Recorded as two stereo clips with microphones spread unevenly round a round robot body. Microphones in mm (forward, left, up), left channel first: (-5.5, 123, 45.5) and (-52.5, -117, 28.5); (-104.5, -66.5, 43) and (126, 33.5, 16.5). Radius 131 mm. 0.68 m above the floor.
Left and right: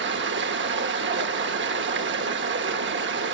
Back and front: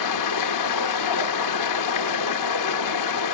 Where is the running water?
145° right, 0.8 m.